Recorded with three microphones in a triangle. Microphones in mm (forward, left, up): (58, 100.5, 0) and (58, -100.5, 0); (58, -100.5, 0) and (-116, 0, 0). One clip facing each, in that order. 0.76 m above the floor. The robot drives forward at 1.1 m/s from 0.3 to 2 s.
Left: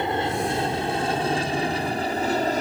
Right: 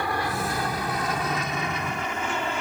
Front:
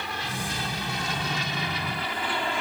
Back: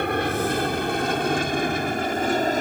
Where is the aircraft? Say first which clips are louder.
Left 4 dB, back 12 dB; 150° left; by 2.6 s 125° left.